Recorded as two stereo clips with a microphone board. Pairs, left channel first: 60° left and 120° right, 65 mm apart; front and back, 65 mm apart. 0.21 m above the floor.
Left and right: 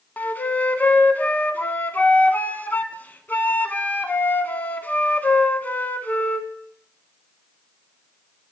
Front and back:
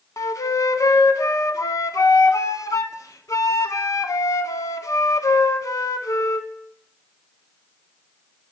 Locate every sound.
0.2 s a flute: 5° left, 0.5 m